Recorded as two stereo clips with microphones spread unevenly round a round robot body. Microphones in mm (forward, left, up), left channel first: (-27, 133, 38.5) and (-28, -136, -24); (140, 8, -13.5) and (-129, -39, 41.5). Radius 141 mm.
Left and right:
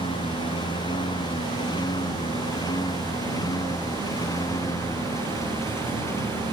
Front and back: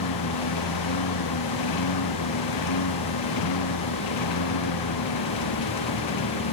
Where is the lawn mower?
15° left; by 6.5 s 10° left.